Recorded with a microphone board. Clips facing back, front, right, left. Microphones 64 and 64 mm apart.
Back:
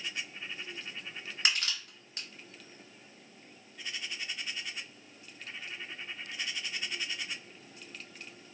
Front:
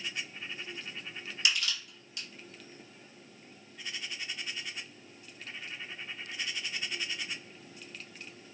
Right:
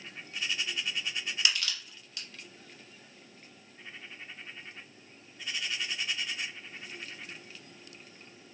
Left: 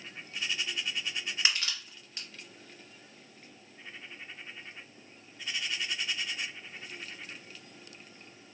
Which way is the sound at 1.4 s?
145° left.